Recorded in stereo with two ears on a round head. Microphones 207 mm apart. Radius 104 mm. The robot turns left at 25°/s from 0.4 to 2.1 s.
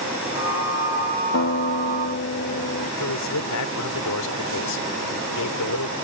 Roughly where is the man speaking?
Left.